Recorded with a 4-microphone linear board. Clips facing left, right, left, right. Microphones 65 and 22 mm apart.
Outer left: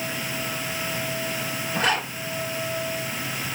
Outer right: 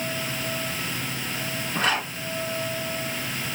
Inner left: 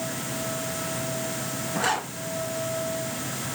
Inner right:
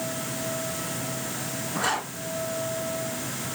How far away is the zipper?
About 3 m.